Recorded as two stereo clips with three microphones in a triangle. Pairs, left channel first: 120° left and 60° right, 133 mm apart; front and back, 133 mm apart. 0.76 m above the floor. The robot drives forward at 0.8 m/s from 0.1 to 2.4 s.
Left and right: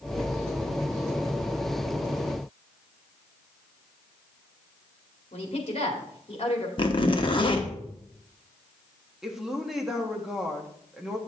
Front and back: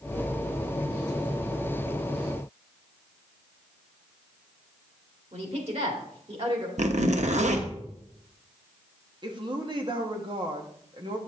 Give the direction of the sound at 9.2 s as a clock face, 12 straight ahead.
5 o'clock.